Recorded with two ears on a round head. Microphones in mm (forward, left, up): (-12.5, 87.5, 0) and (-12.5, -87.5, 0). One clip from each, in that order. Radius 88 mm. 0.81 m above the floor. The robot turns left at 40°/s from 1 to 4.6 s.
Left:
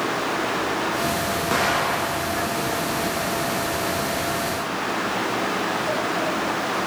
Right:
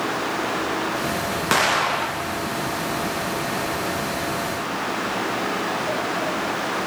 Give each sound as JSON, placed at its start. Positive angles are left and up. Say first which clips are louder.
{"t": 1.5, "sound": "an explosion", "louder": "right 3 dB", "azimuth_deg": -115, "distance_m": 0.5}